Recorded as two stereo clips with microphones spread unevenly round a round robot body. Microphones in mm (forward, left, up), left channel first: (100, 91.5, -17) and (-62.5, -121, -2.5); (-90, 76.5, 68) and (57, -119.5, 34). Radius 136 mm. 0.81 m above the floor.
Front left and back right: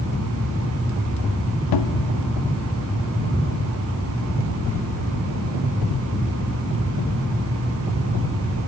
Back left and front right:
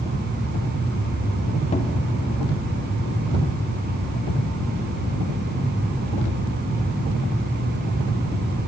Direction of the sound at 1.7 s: 60° left.